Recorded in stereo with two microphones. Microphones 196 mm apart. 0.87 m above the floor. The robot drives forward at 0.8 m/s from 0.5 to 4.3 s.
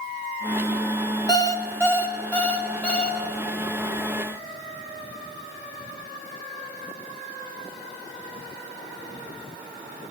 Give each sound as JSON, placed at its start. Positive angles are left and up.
{"t": 1.3, "sound": "an alarm clock", "side_deg": 20, "distance_m": 0.6}